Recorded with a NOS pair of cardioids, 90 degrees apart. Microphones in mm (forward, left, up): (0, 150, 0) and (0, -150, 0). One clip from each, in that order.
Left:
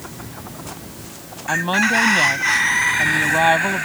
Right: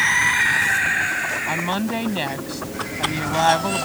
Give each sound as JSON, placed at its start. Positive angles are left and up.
{"t": 1.5, "sound": "a woman speaking", "azimuth_deg": 15}